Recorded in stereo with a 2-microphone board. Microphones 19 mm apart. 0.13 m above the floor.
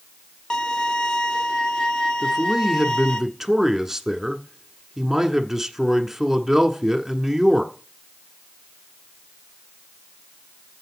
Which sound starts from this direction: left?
A violin, at 0.5 s.